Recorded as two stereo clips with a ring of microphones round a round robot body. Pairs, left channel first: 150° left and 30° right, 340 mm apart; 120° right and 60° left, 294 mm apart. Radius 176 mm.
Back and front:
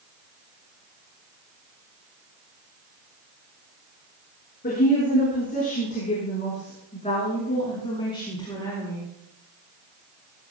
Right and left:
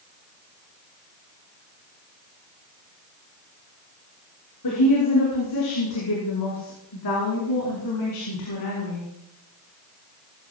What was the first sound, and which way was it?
A woman speaking, 145° right.